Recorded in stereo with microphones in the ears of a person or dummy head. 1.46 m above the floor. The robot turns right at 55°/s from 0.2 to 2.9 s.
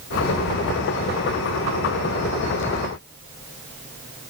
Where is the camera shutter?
I don't hear a camera shutter.